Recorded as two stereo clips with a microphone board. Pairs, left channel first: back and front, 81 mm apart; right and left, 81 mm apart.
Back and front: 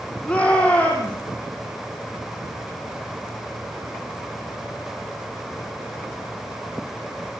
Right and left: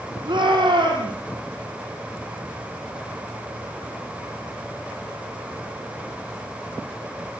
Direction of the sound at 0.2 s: 105° left.